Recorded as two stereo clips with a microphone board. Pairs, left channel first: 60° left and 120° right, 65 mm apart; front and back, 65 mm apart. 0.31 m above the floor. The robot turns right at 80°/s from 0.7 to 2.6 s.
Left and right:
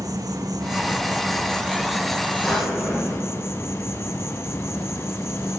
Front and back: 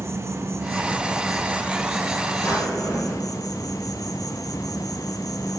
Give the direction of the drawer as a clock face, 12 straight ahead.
1 o'clock.